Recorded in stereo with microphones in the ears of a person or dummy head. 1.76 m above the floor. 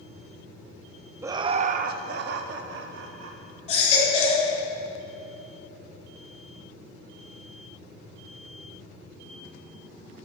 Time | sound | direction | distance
1.2 | laughter | 15° right (ahead or behind) | 0.5 m
3.7 | a baby crying | 40° left (ahead or behind) | 3 m